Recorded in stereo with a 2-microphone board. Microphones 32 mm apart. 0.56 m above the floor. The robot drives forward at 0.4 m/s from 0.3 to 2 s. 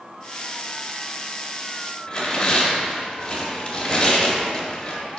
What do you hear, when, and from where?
2.1 s tearing paper: 20° left (ahead or behind), 1.4 m